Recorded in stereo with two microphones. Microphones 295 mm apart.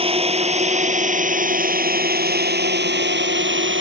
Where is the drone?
20° right (ahead or behind); by 3.8 s 40° right (ahead or behind).